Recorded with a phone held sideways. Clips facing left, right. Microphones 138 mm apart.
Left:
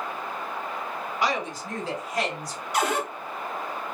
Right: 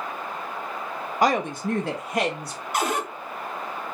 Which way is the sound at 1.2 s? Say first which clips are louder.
Right 7 dB; 45° right (ahead or behind).